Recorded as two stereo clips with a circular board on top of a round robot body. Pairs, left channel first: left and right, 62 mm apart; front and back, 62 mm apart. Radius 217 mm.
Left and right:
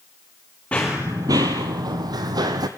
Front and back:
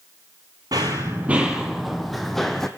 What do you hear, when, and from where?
0.7 s running footsteps: 160° left, 0.5 m; by 2.7 s 85° right, 1.3 m